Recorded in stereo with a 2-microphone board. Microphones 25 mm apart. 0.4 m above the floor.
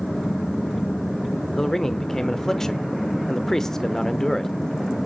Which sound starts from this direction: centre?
A man speaking, at 1.6 s.